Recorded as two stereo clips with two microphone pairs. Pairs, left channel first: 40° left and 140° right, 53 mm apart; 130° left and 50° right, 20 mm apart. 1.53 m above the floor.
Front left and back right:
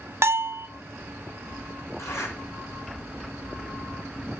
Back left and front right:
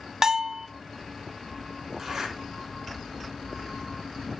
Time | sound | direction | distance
0.2 | a bell | 115° right | 0.5 m
2.0 | a zipper | 25° left | 3.5 m